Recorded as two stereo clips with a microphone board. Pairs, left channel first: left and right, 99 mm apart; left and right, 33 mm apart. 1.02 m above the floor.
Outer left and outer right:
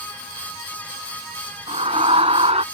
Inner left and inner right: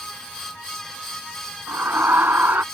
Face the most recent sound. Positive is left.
turn(degrees=-85)